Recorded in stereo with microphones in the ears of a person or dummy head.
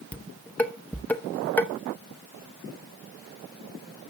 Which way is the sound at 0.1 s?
10° left (ahead or behind).